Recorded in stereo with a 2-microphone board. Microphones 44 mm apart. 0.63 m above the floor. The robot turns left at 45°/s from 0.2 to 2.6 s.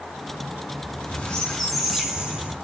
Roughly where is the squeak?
Ahead left.